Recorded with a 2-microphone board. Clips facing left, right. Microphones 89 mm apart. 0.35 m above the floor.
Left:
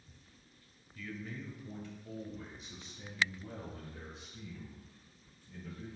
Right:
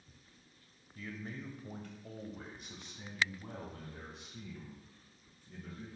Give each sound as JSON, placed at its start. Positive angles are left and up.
{"t": 0.9, "sound": "a man speaking", "side_deg": -35, "distance_m": 1.3}